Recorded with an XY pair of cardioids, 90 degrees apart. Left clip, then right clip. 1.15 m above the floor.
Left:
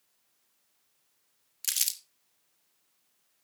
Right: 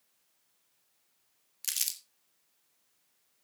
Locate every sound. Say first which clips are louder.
1.6 s crumpling: left 3 dB; 15° left, 1.6 m